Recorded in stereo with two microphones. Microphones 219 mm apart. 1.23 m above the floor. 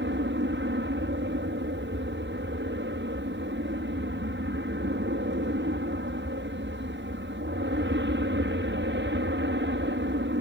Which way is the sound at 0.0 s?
55° right (ahead or behind).